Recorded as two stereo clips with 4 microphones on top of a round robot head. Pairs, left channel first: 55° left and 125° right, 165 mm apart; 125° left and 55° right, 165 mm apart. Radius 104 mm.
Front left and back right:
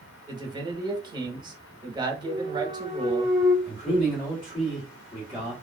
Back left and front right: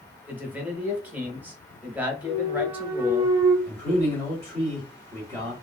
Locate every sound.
0.3 s a man speaking: 125° right, 0.9 m
2.2 s a clunk: 120° right, 0.8 m
3.6 s a man speaking: 15° left, 2 m